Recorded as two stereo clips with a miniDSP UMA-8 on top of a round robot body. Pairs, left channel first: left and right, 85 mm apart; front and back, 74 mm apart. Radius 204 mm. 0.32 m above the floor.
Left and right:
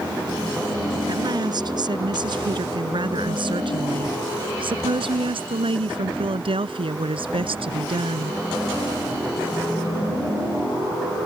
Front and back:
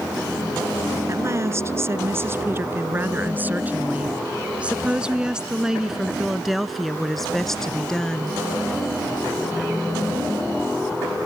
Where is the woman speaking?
130° right; by 8.4 s 80° right.